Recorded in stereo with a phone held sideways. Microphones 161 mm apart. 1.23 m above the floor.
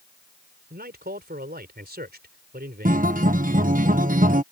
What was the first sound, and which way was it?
A man speaking, 90° right.